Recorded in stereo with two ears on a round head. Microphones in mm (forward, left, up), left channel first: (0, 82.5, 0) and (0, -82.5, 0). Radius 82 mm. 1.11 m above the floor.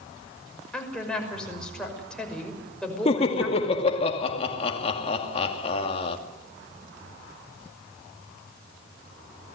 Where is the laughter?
30° left (ahead or behind), 2.5 m.